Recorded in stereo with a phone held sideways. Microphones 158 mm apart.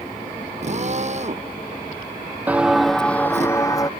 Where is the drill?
45° right (ahead or behind).